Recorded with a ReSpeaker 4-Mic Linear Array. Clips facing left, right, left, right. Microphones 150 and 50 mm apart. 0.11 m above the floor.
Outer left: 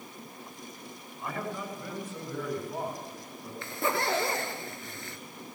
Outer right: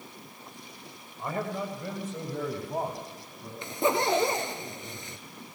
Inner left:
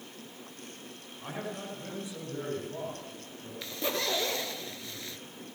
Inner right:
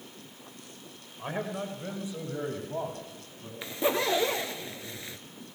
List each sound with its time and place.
1.2 s a man speaking: 25° right (ahead or behind), 7.5 m
3.6 s a zipper: 20° right (ahead or behind), 1.2 m